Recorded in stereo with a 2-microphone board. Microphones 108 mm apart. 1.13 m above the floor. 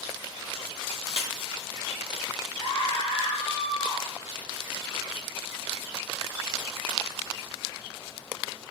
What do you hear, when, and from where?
1.1 s breaking glass: 75° left (ahead or behind), 4 m
2.6 s a scream: 55° left (ahead or behind), 3.5 m